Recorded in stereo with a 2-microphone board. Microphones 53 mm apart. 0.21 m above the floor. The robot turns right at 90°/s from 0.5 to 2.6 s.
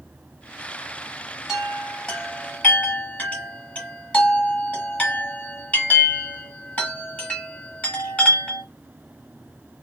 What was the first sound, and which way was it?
A chime, 10° right (ahead or behind).